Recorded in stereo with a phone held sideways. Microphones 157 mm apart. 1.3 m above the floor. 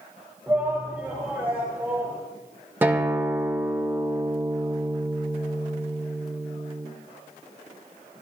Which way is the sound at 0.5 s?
10° right (ahead or behind).